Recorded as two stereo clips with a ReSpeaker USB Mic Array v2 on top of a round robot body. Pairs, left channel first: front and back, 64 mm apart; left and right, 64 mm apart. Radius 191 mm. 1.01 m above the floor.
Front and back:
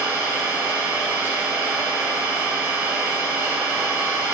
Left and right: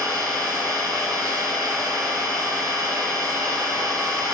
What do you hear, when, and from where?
0.0 s an engine running: 125° right, 2 m